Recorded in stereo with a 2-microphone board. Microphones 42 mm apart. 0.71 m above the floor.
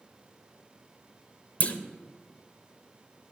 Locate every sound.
1.6 s a clunk: 35° left (ahead or behind), 0.7 m